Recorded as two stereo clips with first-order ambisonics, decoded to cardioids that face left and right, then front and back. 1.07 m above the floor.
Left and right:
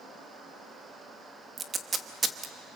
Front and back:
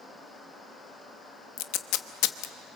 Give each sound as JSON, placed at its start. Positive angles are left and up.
{"t": 1.6, "sound": "tape being pulled", "azimuth_deg": -20, "distance_m": 1.1}